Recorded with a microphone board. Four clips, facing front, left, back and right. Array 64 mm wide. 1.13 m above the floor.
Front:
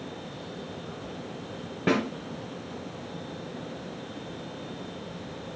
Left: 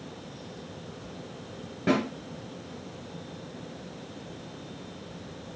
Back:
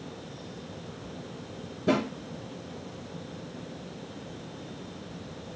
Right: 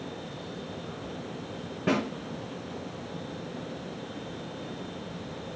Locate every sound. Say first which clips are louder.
1.9 s a snare drum: left 2 dB, front 1 dB; straight ahead, 4 m